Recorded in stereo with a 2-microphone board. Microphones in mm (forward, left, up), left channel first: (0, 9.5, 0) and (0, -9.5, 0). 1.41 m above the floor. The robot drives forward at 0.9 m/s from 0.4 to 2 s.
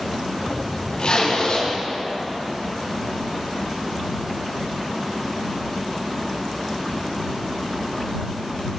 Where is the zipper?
65° left (ahead or behind), 3.5 m; by 1.7 s 75° left (ahead or behind), 3.5 m.